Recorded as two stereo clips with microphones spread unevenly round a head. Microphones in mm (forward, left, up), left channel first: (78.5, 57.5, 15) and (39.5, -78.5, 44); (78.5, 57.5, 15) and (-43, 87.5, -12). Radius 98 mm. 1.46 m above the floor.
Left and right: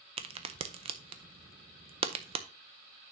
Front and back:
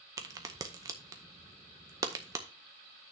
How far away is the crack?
About 0.6 m.